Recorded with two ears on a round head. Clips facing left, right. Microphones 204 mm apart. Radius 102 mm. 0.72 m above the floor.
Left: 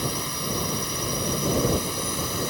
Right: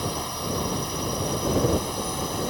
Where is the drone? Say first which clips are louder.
Even; 30° left (ahead or behind).